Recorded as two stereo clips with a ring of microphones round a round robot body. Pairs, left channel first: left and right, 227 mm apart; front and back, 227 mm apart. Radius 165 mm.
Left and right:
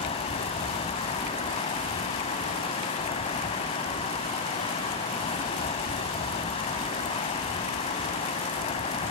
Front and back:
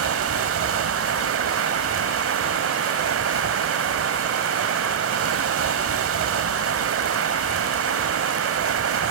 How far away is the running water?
About 0.7 m.